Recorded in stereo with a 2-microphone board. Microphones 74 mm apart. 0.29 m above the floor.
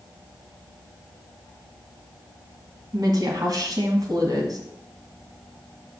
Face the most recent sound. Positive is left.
turn(degrees=-60)  # may be behind; listen again after turning